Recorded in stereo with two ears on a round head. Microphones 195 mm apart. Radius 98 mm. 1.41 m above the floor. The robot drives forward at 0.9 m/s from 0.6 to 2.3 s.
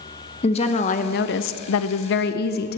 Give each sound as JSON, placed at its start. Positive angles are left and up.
{"t": 0.4, "sound": "a woman speaking", "side_deg": 30, "distance_m": 1.2}